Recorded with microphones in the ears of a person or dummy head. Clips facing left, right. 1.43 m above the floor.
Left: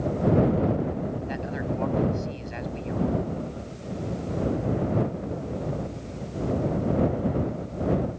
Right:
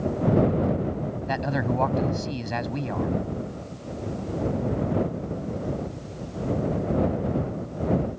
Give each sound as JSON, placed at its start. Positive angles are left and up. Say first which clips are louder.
{"t": 1.3, "sound": "a man speaking", "louder": "right 4 dB", "side_deg": -65}